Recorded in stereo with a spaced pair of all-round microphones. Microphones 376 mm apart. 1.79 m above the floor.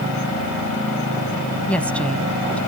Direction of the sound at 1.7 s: 5° left (ahead or behind).